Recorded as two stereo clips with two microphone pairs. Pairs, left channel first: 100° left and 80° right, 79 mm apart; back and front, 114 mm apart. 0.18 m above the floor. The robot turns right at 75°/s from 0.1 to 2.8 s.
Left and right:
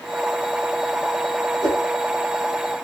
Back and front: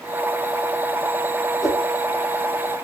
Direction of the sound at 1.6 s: 90° right.